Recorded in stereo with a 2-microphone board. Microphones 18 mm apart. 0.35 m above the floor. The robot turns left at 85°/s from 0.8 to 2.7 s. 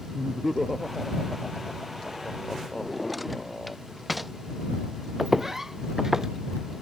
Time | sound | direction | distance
0.1 | laughter | 20° right (ahead or behind) | ?
2.8 | a drawer | 10° right (ahead or behind) | ?
5.2 | footsteps | 5° right (ahead or behind) | ?